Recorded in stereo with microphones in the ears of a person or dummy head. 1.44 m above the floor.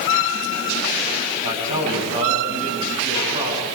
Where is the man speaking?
35° right (ahead or behind), 9.5 m.